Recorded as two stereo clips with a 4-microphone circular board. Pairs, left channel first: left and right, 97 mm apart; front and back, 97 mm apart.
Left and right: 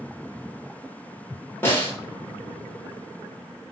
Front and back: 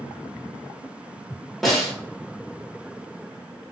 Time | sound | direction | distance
1.6 | a snare drum | 90° left | 1.3 m